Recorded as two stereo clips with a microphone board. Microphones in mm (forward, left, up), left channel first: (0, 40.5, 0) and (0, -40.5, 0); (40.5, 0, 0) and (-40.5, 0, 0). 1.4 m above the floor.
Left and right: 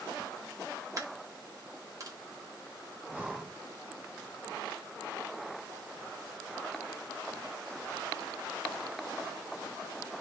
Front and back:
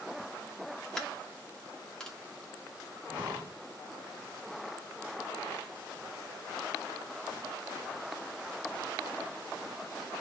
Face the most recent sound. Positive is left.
turn(degrees=-160)